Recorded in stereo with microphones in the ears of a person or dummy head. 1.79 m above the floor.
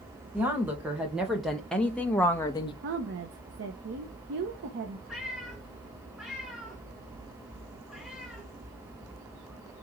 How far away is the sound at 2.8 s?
About 1.3 m.